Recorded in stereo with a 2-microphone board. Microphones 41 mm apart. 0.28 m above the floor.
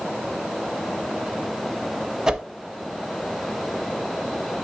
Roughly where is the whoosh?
Centre.